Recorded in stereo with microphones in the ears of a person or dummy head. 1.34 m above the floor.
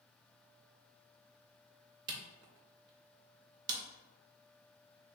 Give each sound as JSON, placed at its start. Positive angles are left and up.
{"t": 2.1, "sound": "a camera shutter", "side_deg": -20, "distance_m": 0.5}